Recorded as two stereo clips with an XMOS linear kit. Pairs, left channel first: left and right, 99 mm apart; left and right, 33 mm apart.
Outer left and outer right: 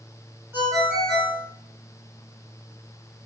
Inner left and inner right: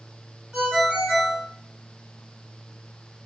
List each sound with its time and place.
0.5 s a ringtone: 25° right (ahead or behind), 1.4 m